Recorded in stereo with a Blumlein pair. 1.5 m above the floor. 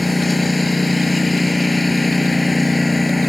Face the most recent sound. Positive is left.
turn(degrees=5)